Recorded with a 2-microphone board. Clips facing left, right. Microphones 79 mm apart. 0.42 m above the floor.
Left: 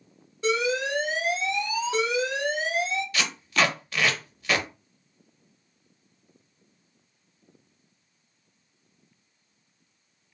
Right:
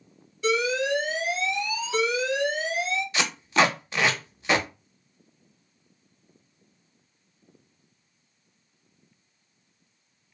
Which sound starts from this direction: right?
Tape being pulled, at 3.1 s.